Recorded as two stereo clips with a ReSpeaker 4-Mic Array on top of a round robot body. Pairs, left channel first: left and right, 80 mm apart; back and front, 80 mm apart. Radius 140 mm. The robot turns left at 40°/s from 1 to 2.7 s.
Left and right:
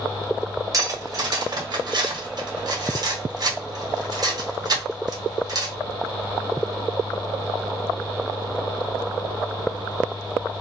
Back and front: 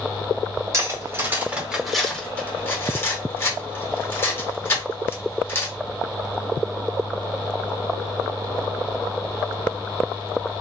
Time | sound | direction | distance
0.7 | cutlery clinking | 50° right | 1.1 m